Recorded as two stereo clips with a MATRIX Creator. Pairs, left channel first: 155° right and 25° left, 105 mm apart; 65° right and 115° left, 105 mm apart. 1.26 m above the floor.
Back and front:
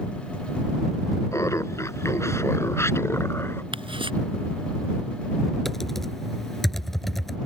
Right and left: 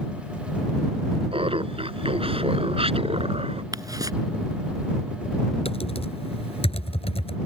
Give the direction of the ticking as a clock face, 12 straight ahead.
10 o'clock.